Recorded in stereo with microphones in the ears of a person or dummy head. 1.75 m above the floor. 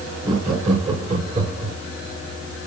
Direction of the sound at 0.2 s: 25° right (ahead or behind).